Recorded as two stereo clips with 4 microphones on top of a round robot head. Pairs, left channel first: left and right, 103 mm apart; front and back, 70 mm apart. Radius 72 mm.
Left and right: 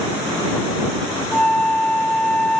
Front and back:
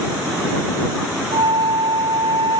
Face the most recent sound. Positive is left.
turn(degrees=170)